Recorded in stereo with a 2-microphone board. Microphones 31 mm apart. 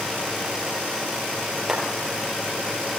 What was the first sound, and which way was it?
A clap, 20° right (ahead or behind).